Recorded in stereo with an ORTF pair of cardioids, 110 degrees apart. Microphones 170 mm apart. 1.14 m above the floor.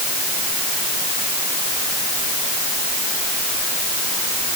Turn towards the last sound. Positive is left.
No sound to turn to.